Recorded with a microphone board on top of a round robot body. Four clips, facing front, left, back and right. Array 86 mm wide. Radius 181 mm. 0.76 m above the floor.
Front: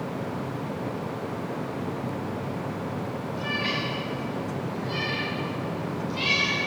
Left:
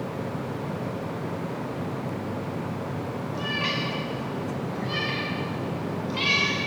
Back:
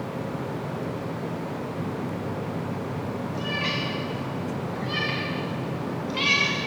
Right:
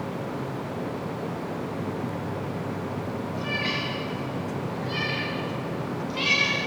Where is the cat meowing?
110° left, 2 m; by 6.6 s 160° left, 3 m.